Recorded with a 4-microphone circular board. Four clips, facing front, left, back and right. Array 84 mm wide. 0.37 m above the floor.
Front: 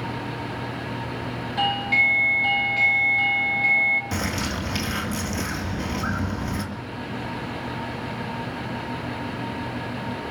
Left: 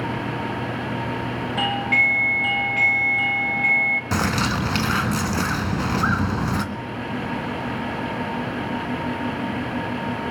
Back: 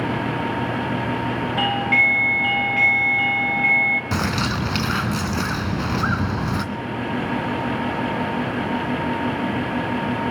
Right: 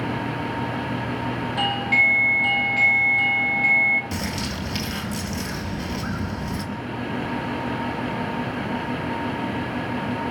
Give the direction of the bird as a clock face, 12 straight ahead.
8 o'clock.